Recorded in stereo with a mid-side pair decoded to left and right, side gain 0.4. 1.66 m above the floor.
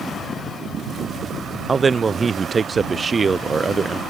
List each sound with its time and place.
1.7 s a man speaking: 35° right